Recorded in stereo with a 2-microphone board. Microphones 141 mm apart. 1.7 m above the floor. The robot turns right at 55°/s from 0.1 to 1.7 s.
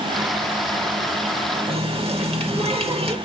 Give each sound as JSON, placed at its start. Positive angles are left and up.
{"t": 1.7, "sound": "a running tap", "side_deg": -40, "distance_m": 1.4}